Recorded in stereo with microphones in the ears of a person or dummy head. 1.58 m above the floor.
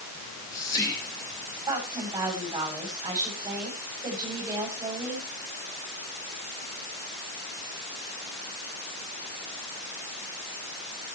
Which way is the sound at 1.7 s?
20° right (ahead or behind).